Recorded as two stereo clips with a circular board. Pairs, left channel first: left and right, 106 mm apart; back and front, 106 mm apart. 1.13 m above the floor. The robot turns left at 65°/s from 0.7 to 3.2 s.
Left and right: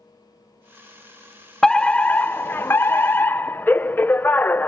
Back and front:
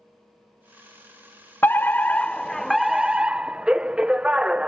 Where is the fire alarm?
165° left; by 4.7 s 65° left.